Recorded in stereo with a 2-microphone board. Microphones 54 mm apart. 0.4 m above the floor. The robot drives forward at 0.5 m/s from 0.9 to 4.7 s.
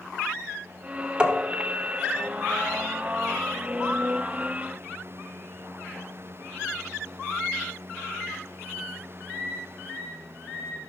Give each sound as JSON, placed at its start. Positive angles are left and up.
{"t": 1.2, "sound": "tapping", "side_deg": -15, "distance_m": 1.5}